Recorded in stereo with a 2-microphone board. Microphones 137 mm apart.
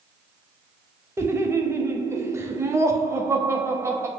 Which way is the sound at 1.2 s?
20° right (ahead or behind).